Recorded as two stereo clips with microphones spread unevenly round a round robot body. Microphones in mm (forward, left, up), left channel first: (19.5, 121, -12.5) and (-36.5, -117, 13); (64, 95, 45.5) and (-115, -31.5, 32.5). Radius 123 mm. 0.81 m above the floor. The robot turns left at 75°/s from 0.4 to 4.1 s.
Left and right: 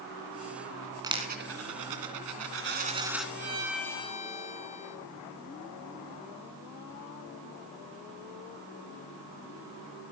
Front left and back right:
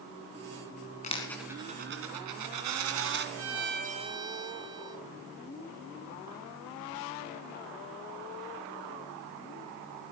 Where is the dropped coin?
25° right, 2.5 m; by 3.2 s 165° left, 2.5 m.